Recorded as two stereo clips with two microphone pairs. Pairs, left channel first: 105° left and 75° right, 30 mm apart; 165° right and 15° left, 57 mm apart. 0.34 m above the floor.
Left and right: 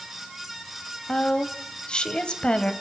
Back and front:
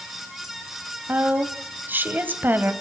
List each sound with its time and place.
1.1 s a woman speaking: 60° left, 1.7 m